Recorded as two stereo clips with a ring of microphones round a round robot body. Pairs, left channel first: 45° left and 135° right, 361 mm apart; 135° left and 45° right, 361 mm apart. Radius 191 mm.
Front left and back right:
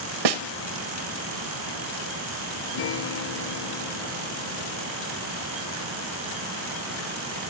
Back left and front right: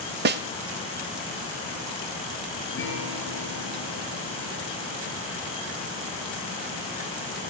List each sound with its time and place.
0.2 s a snare drum: 110° right, 1.1 m
2.7 s a guitar: 75° left, 5.5 m